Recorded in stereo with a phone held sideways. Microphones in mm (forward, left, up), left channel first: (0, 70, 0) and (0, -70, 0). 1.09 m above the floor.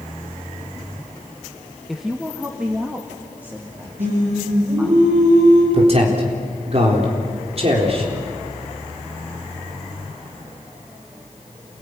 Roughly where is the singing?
Right.